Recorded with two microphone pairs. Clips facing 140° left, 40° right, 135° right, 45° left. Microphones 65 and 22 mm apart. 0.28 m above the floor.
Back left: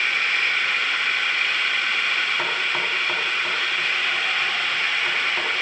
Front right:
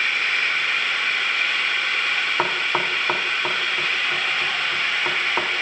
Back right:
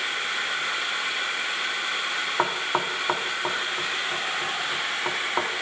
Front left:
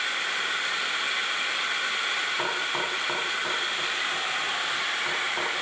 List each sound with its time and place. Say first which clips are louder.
2.4 s knocking: front right 2 dB, back right 2 dB; 90° right, 2.0 m